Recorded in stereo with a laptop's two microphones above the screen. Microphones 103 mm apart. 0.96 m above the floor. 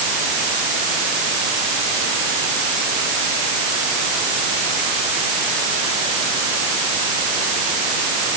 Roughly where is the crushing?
No crushing in this recording.